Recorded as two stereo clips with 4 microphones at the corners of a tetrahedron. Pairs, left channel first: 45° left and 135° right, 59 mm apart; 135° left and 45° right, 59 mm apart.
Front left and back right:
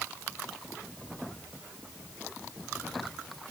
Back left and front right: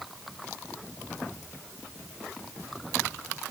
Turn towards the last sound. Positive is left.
No sound to turn to.